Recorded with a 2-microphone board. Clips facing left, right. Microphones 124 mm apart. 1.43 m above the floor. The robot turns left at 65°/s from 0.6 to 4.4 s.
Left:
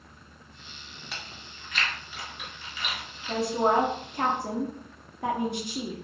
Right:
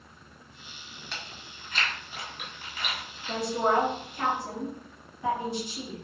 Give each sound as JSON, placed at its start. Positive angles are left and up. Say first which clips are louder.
{"t": 1.1, "sound": "chewing", "louder": "even", "side_deg": 5, "distance_m": 1.5}
{"t": 3.3, "sound": "a woman speaking", "louder": "left 2 dB", "azimuth_deg": -175, "distance_m": 0.9}